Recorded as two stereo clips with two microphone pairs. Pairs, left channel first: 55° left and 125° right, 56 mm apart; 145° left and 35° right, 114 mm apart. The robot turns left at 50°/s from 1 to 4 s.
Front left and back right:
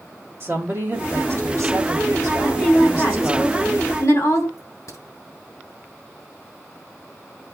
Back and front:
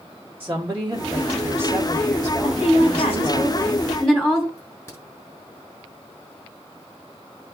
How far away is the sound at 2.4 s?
About 5.5 m.